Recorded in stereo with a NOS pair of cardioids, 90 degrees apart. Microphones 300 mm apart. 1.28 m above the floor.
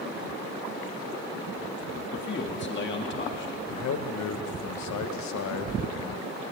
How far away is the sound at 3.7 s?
About 1.2 m.